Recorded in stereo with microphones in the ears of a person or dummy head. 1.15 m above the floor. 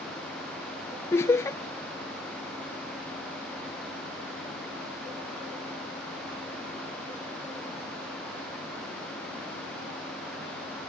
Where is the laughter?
15° left (ahead or behind).